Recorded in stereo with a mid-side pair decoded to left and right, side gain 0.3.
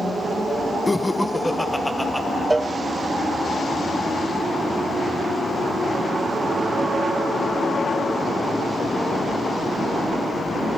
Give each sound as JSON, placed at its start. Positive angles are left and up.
{"t": 0.9, "sound": "laughter", "azimuth_deg": 15, "distance_m": 1.1}
{"t": 2.5, "sound": "a cowbell", "azimuth_deg": -25, "distance_m": 0.5}